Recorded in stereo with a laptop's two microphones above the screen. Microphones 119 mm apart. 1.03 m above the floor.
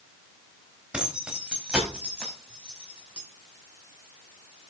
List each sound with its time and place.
0.9 s keys jangling: 10° right (ahead or behind), 4.5 m